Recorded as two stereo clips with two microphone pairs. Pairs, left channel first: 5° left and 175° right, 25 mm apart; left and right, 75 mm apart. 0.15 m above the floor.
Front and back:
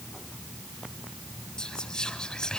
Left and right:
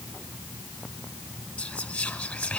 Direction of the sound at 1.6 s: 30° left.